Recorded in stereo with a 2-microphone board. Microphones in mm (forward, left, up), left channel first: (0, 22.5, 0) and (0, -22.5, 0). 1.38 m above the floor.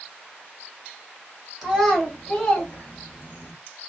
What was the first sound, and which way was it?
A child speaking, 5° right (ahead or behind).